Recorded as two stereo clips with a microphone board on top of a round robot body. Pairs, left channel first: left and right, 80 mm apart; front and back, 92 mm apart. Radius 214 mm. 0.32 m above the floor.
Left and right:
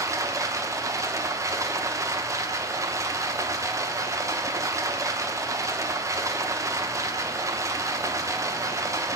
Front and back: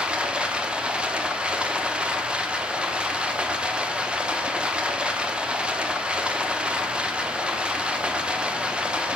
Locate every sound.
0.0 s running water: 105° right, 1.1 m